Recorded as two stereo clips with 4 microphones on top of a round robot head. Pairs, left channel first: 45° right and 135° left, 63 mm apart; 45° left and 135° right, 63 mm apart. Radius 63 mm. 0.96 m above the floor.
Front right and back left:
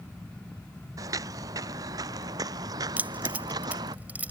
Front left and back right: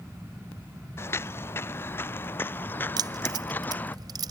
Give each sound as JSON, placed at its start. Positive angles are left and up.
{"t": 1.0, "sound": "footsteps", "azimuth_deg": 100}
{"t": 3.0, "sound": "keys jangling", "azimuth_deg": -155}